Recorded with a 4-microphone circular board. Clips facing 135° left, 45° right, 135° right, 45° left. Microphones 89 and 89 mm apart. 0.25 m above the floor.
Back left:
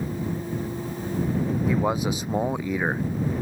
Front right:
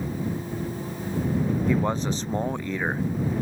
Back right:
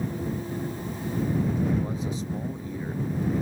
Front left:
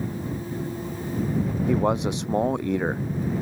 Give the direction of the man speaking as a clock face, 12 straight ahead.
10 o'clock.